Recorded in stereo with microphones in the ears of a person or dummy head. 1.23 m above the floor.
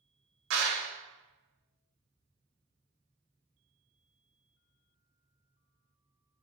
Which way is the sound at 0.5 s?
75° right (ahead or behind).